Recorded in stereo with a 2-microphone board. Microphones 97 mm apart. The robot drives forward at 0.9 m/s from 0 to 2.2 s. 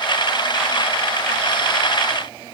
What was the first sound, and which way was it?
Only background noise.